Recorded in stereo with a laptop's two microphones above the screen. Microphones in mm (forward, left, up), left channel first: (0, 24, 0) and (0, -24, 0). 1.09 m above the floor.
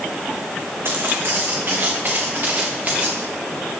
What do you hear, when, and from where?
0.8 s footsteps: 55° right (ahead or behind), 3 m; by 3.2 s 35° right (ahead or behind), 5.5 m